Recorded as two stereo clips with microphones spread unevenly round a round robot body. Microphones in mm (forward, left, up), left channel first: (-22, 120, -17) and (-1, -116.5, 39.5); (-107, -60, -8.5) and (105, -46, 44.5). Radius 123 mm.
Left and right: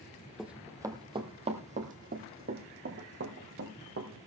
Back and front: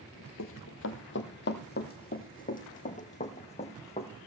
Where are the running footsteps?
165° right, 1.3 m; by 4.1 s 110° right, 3 m.